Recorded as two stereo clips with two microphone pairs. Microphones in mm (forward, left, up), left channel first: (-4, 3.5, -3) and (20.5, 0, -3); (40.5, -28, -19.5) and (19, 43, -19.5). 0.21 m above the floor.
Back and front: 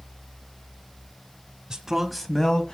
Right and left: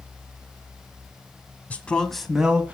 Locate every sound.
1.7 s a man speaking: 25° right, 1.2 m; by 2.7 s 165° left, 1.3 m